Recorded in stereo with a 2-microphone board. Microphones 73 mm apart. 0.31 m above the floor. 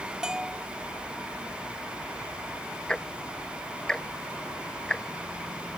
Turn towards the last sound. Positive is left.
turn(degrees=10)  # may be behind; listen again after turning